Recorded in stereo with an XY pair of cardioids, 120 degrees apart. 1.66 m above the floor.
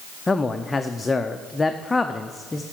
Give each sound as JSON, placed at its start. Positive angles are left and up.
{"t": 0.3, "sound": "a man speaking", "azimuth_deg": 20, "distance_m": 0.5}